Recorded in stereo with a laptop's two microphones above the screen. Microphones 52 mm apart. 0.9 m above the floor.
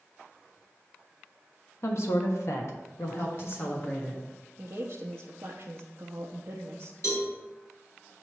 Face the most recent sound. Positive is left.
turn(degrees=65)  # may be behind; listen again after turning